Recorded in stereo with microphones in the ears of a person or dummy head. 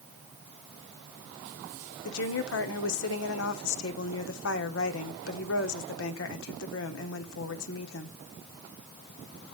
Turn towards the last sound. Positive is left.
turn(degrees=80)